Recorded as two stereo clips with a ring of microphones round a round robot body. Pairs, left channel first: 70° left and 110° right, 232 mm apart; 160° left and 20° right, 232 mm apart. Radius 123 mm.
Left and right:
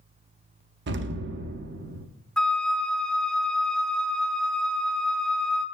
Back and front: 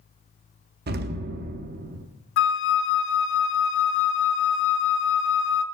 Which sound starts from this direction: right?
An explosion, at 0.9 s.